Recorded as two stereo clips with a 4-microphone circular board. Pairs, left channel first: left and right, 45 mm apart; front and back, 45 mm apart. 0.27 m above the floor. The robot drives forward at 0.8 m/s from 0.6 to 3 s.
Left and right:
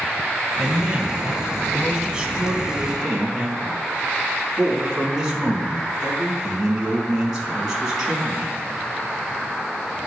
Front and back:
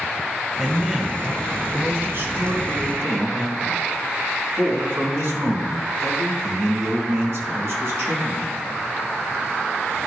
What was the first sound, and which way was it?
A man speaking, 100° right.